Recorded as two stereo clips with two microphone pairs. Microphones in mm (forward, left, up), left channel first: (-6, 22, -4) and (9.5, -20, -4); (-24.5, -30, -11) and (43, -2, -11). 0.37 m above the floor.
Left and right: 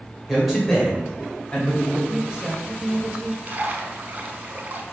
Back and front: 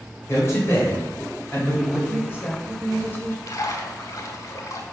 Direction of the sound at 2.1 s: 125° right.